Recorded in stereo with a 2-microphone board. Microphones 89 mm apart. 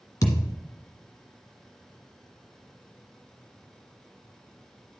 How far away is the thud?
About 1.6 m.